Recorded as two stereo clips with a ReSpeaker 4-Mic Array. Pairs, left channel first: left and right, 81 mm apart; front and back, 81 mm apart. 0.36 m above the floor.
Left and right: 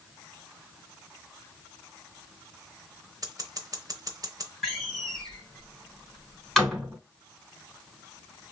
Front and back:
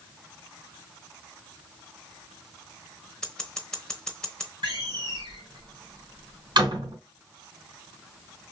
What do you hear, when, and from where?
3.2 s scissors: 75° right, 0.9 m
4.6 s a door slam: 175° left, 2.5 m